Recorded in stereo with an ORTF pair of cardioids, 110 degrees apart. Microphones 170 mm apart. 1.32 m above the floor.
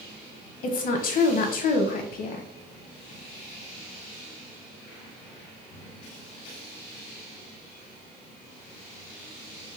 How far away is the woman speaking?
About 1.2 m.